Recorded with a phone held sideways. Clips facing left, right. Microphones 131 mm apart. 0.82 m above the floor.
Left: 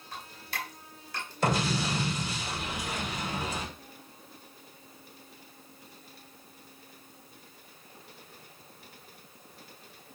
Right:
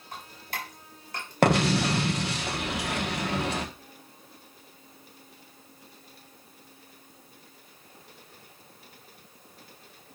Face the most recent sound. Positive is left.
turn(degrees=-75)  # may be behind; listen again after turning